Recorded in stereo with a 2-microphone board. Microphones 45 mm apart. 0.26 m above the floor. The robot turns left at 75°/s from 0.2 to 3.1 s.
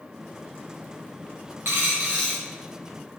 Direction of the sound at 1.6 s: 125° right.